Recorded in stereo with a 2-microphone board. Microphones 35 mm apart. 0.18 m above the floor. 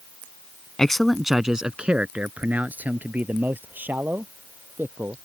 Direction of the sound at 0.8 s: 15° left (ahead or behind).